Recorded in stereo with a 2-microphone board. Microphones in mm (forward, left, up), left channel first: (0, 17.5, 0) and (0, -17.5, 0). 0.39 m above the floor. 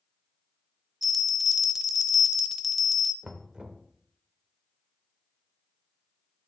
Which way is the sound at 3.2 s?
30° right (ahead or behind).